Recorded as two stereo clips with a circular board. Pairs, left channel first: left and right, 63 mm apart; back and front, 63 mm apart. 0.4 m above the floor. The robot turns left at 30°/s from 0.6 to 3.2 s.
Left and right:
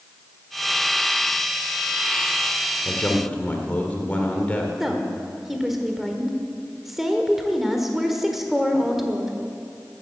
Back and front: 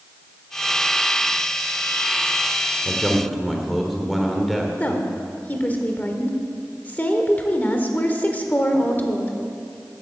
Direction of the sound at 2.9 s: 100° left.